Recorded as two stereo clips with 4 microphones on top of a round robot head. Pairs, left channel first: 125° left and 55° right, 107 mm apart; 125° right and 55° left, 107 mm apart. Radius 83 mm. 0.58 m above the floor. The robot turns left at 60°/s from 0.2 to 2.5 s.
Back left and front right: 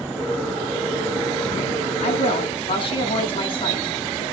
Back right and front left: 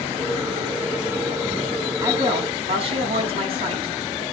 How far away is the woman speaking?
About 6.5 m.